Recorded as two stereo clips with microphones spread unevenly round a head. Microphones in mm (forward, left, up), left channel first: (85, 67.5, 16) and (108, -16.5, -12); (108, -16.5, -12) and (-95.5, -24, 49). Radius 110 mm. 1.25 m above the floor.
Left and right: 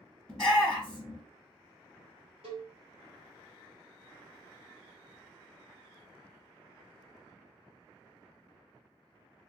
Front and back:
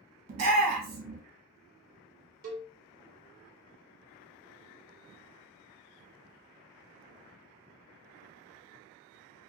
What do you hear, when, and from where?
0.3 s a shout: 165° right, 1.2 m
2.4 s a cowbell: 135° right, 0.7 m